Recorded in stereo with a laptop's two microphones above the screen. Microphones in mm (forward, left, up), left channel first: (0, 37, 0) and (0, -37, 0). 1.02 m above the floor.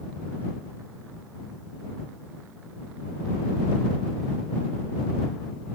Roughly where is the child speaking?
I don't hear a child speaking.